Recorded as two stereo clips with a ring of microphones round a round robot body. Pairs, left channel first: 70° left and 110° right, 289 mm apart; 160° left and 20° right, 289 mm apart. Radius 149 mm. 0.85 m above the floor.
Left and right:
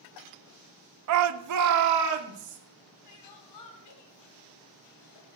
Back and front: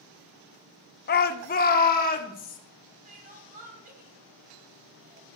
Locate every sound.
1.1 s a shout: 145° right, 0.9 m; by 2.6 s 140° right, 2.5 m
3.0 s crying: 40° left, 2.5 m